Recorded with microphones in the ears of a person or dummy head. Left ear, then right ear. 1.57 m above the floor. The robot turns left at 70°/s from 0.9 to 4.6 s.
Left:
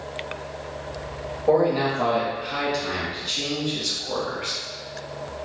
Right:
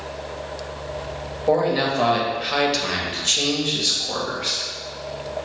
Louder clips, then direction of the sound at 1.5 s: Even; 10° left.